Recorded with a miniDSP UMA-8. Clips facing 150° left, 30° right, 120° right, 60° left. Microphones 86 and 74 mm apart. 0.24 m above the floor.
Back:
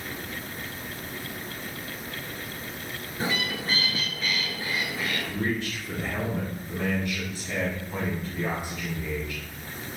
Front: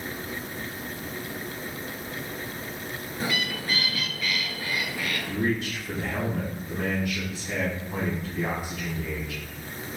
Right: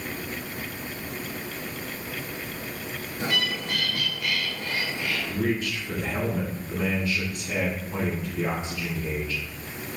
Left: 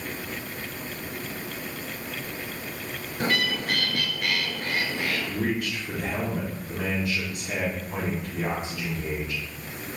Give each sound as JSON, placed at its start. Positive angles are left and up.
{"t": 3.2, "sound": "a bird", "azimuth_deg": 90, "distance_m": 0.6}
{"t": 5.2, "sound": "a man speaking", "azimuth_deg": 45, "distance_m": 2.0}